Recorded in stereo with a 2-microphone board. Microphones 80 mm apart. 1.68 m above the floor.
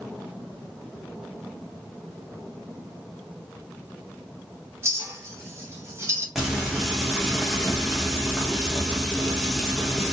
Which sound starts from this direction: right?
A clink, at 4.8 s.